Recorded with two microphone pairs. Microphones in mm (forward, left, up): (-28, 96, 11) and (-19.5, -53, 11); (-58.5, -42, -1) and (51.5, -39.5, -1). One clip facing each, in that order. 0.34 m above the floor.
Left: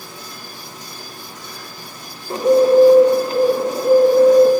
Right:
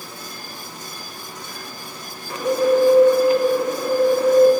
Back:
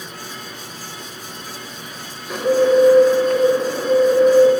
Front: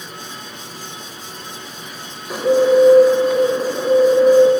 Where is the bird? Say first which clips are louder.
Left 6 dB, front 1 dB; 80° left, 1.1 m.